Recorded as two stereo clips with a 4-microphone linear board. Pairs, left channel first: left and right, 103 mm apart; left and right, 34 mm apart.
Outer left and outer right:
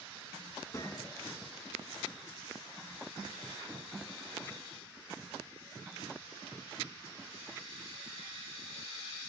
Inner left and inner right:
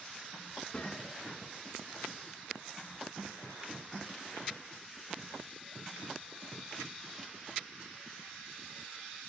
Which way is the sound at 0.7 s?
35° left (ahead or behind).